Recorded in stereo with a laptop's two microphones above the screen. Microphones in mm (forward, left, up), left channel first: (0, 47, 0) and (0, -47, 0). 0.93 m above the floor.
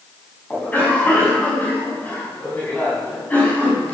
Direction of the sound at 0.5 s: 15° left (ahead or behind).